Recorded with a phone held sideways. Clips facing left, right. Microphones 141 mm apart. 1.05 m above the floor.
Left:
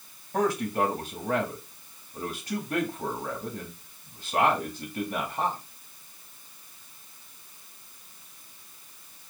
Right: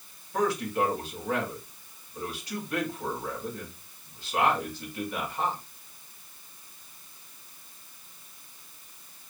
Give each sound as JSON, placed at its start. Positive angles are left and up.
{"t": 0.3, "sound": "a man speaking", "side_deg": 50, "distance_m": 2.5}